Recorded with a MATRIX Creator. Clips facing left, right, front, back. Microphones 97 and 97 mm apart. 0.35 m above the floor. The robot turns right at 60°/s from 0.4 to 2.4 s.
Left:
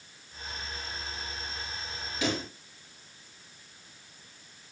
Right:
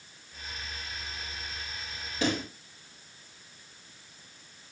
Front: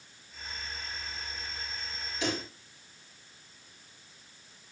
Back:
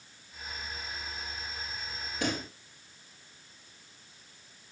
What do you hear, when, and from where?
2.2 s a pop: 140° right, 4 m; by 2.5 s 130° right, 4 m